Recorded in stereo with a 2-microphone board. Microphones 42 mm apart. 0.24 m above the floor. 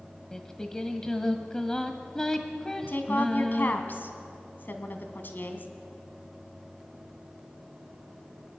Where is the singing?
15° left (ahead or behind), 1.4 m.